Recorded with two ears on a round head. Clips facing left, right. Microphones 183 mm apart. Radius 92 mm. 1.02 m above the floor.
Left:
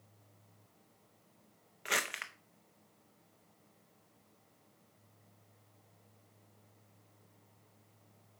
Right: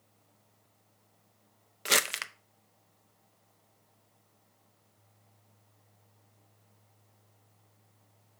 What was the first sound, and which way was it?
Crumpling, 50° right (ahead or behind).